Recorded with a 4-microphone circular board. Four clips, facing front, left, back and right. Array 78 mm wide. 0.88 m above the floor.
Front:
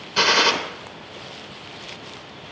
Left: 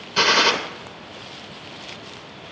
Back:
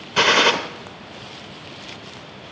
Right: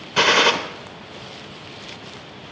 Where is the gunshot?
140° right, 0.6 m.